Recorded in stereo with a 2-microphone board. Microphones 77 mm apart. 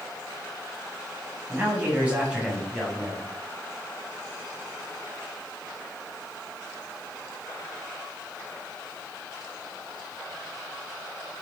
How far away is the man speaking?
About 7.5 m.